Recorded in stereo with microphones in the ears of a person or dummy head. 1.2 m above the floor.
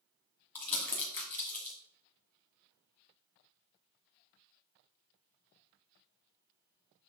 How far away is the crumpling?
About 2.5 m.